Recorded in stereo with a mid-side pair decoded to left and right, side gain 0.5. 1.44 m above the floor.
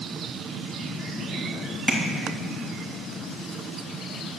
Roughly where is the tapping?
Ahead.